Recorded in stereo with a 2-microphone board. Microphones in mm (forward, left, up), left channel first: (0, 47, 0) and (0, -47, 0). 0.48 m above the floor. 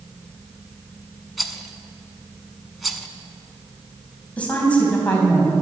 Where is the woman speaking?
15° left (ahead or behind), 3.5 m.